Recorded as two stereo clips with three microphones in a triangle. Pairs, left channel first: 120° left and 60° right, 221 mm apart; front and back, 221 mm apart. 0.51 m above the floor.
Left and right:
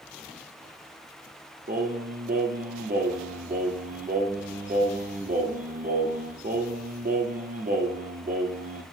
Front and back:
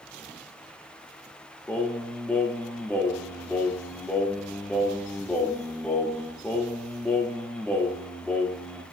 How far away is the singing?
About 0.7 m.